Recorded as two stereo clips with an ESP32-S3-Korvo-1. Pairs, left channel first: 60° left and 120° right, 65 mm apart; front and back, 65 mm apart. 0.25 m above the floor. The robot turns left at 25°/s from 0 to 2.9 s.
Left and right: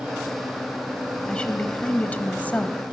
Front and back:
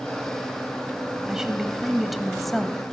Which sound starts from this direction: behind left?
A woman speaking, at 1.3 s.